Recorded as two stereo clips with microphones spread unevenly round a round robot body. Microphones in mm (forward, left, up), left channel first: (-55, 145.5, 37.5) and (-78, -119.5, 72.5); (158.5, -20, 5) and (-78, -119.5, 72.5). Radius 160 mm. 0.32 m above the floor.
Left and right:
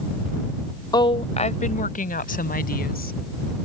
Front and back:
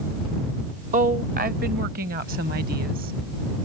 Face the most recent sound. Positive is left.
turn(degrees=140)